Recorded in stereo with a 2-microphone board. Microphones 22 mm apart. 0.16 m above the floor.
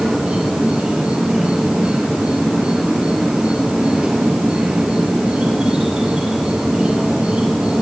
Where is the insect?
60° right (ahead or behind), 2.5 m.